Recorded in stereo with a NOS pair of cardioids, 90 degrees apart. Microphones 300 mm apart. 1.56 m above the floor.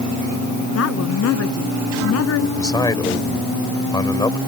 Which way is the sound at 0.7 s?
60° left.